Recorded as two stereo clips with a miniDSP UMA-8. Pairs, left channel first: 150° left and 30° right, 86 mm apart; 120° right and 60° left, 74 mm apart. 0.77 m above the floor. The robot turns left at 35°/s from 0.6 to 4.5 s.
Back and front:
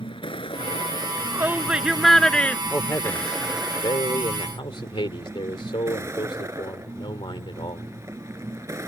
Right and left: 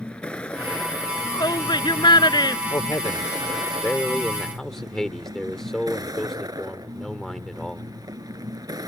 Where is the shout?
85° right; by 2.6 s 140° right.